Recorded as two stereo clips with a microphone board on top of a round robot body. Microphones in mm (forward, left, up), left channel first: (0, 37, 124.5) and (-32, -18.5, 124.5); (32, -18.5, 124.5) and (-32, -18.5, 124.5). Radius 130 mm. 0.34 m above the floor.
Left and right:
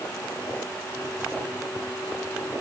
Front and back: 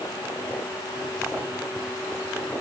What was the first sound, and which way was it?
Only background noise.